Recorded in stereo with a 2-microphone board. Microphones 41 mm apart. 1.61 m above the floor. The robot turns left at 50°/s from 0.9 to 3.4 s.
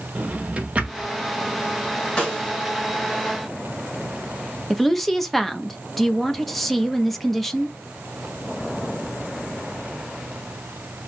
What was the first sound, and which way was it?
A drawer, 30° right (ahead or behind).